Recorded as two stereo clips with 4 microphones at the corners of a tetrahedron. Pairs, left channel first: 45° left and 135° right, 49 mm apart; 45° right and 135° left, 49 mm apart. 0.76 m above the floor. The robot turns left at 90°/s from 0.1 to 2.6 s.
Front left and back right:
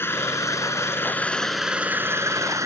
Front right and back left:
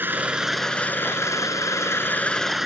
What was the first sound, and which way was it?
An engine running, 85° left.